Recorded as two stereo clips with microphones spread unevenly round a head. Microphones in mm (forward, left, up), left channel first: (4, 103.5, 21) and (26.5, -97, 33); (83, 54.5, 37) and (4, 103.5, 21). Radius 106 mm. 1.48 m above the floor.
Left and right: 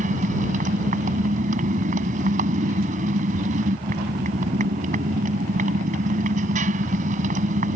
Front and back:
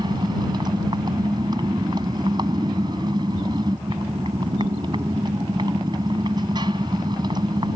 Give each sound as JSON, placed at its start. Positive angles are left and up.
{"t": 0.0, "sound": "a motorcycle", "azimuth_deg": -140}